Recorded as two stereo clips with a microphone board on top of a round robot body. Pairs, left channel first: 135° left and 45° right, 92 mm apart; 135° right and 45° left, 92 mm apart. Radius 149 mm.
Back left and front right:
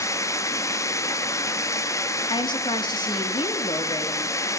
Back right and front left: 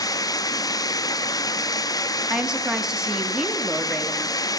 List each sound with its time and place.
0.0 s running water: 175° right, 0.9 m
2.3 s a woman speaking: 130° left, 1.7 m